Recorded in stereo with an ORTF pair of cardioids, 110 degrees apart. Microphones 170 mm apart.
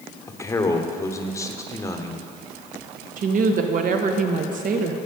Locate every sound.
0.3 s a man speaking: 15° left, 1.1 m
3.2 s a woman speaking: 50° right, 1.3 m